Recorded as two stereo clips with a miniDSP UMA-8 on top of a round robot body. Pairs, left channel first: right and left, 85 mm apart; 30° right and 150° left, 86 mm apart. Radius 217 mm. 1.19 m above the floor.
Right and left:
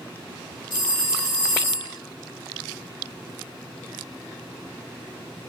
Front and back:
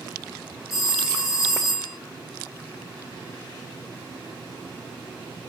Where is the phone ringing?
120° right, 1.2 m.